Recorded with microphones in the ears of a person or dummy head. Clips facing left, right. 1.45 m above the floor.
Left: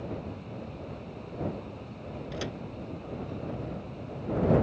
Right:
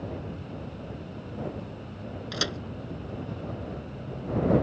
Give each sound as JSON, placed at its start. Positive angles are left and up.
{"t": 0.0, "sound": "an insect", "side_deg": -10}
{"t": 2.3, "sound": "a thud", "side_deg": -80}